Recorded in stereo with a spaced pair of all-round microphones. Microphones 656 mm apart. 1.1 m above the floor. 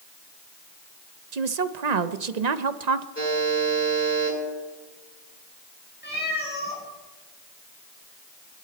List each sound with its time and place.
1.3 s a woman speaking: 80° right, 0.9 m
3.1 s a buzzer: 20° left (ahead or behind), 9.5 m
6.0 s a cat meowing: 15° left (ahead or behind), 4 m